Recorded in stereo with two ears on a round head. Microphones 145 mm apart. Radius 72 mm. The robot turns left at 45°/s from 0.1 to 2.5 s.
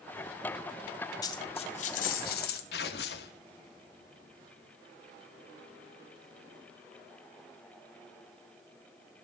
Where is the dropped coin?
155° left, 2.5 m; by 2.6 s 95° left, 2.5 m.